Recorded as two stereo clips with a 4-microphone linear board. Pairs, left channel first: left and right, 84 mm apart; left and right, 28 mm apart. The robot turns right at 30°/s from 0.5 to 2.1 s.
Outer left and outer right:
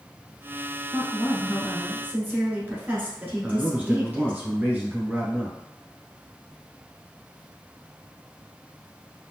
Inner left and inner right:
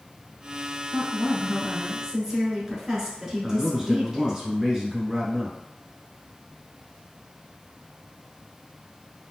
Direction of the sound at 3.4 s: 20° right (ahead or behind).